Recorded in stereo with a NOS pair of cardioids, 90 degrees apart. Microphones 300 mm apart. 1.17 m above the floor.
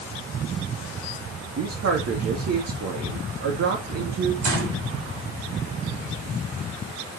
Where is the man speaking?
55° right, 2.5 m.